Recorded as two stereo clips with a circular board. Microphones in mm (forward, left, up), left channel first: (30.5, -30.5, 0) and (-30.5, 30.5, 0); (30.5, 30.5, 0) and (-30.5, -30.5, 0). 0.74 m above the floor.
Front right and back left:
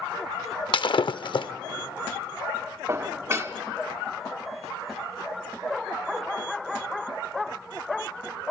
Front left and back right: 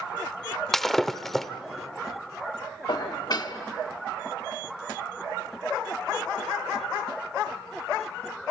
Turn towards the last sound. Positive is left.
turn(degrees=80)